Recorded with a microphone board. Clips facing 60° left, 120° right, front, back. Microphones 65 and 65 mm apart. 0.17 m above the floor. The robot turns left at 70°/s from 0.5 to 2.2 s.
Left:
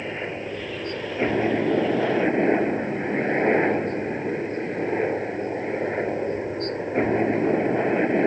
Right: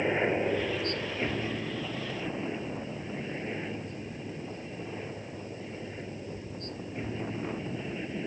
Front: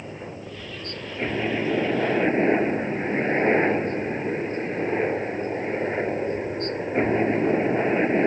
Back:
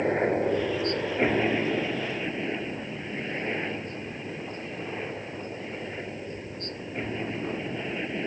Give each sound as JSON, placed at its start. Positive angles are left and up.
{"t": 0.0, "sound": "a helicopter", "azimuth_deg": 160}